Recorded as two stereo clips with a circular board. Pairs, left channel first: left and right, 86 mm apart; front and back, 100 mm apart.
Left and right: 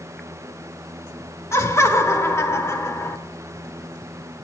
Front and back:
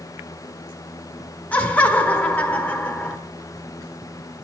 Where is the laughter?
65° left, 1.1 m.